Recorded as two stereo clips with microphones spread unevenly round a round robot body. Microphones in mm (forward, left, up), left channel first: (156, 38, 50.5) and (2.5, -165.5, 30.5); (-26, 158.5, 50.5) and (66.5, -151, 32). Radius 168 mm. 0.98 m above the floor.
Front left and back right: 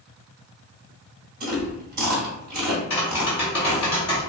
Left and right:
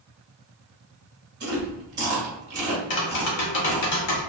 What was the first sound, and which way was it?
Chewing, 135° right.